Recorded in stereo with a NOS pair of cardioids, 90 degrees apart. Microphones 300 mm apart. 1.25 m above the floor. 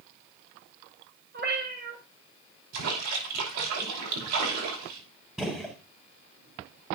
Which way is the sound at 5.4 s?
Straight ahead.